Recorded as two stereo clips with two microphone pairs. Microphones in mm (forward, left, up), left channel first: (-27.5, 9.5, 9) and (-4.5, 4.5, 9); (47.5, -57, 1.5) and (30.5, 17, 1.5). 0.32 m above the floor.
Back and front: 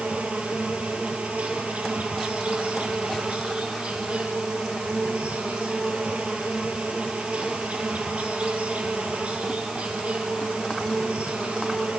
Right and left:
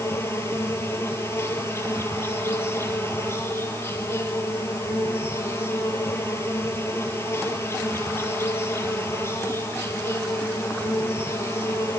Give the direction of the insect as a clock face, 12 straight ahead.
1 o'clock.